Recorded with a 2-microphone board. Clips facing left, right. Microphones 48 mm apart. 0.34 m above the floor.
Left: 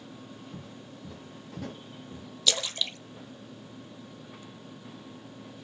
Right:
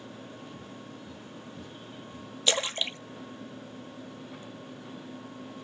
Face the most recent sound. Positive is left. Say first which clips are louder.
# right 2 dB
turn(degrees=-30)  # may be behind; listen again after turning